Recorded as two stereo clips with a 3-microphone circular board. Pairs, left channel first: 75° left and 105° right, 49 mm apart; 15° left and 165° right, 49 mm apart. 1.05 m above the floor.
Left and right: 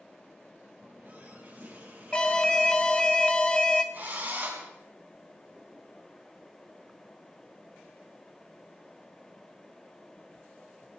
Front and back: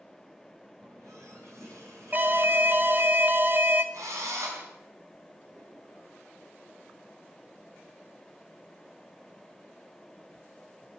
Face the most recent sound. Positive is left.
turn(degrees=-160)